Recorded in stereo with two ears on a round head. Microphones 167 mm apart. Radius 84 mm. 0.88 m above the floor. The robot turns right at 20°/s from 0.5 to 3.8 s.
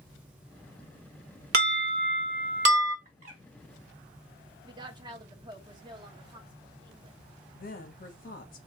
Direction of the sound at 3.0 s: 45° right (ahead or behind).